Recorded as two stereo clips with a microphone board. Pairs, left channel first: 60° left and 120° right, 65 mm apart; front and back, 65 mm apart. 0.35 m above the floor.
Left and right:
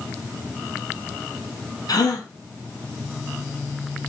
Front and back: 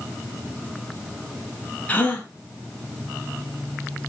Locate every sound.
1.9 s a gasp: 65° left, 1.2 m